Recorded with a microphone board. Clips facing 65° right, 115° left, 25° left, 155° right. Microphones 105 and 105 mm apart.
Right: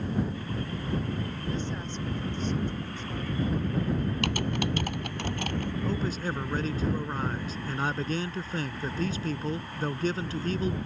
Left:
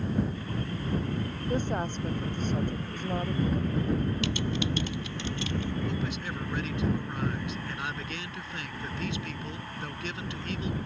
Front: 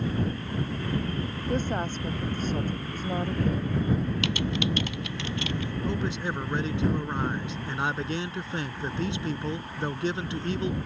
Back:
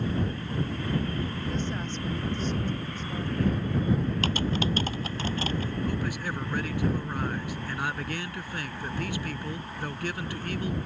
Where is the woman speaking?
70° left.